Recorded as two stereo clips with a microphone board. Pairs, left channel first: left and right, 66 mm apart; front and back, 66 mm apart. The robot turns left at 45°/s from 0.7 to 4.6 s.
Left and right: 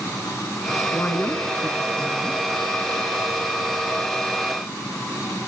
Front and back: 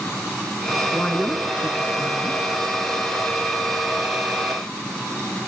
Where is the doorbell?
No doorbell in this recording.